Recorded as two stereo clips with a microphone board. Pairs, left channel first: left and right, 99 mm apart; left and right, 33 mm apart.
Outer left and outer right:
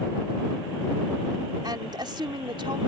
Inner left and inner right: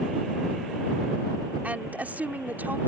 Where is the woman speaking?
45° right (ahead or behind); by 2.8 s 60° right (ahead or behind).